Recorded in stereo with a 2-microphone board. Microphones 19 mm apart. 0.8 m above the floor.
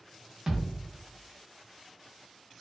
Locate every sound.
0.5 s a thud: 35° right (ahead or behind), 0.9 m